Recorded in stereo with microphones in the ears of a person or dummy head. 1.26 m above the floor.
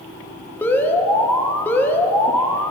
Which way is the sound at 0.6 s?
15° left (ahead or behind).